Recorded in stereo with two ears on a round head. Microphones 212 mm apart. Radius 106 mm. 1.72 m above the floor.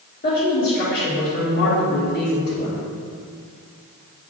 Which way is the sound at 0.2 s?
40° left (ahead or behind).